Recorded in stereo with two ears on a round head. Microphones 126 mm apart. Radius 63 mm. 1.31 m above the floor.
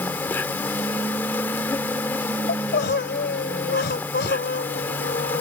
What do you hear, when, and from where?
0.0 s an insect: 15° left (ahead or behind)
2.5 s crying: 80° left